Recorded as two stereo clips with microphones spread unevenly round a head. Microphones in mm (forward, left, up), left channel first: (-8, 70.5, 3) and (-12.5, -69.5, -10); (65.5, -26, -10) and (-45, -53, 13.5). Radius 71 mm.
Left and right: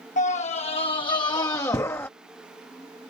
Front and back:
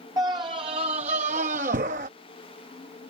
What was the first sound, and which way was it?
A scream, 125° left.